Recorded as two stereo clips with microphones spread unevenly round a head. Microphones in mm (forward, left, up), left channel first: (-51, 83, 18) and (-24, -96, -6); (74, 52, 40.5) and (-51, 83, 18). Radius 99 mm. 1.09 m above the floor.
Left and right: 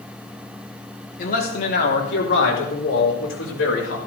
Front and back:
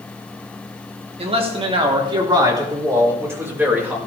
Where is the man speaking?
135° left, 3.5 m; by 4.0 s 90° left, 5 m.